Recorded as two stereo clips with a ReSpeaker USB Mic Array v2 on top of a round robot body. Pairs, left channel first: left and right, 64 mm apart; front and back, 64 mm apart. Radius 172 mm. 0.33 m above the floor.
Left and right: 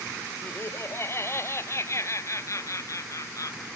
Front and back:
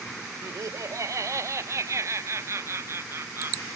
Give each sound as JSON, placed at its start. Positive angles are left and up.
{"t": 0.4, "sound": "laughter", "azimuth_deg": 140}